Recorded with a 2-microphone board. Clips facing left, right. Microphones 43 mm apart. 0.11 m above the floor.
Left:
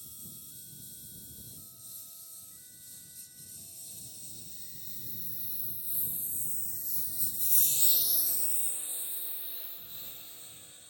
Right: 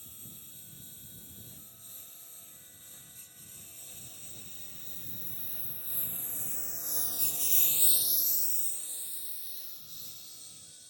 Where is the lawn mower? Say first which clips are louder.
Even; 35° right (ahead or behind); by 10.9 s 30° left (ahead or behind).